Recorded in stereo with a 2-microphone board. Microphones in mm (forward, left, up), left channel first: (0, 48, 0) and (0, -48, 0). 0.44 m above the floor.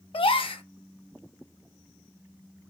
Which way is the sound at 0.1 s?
70° left (ahead or behind).